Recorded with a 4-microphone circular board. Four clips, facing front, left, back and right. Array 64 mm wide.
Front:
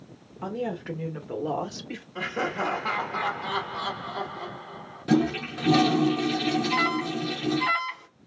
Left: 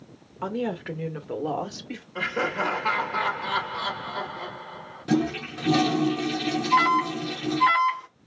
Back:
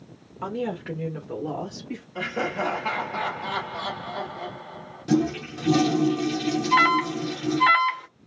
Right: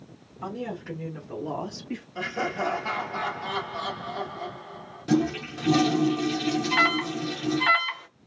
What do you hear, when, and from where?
0.4 s a woman speaking: 125° left, 1.2 m; by 2.0 s 40° left, 1.3 m
2.1 s laughter: 85° left, 1.4 m
5.1 s a toilet flushing: 15° left, 0.5 m
6.7 s an alarm: 160° right, 0.9 m